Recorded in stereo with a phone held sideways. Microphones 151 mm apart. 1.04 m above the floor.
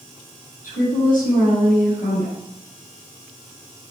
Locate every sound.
0.6 s a woman speaking: 75° left (ahead or behind), 5 m